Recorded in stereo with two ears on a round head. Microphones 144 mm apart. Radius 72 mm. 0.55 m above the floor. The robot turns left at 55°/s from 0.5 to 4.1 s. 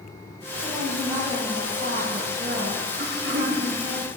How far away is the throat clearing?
About 5 m.